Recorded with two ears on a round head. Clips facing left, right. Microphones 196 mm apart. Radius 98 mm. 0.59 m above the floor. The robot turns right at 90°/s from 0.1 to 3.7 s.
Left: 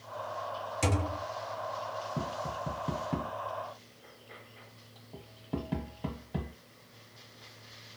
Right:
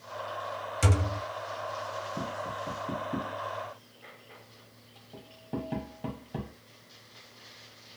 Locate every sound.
0.8 s a thud: 170° right, 0.9 m; by 1.2 s 135° right, 0.9 m
2.2 s tapping: 40° left (ahead or behind), 1.2 m; by 6.5 s centre (ahead or behind), 1.2 m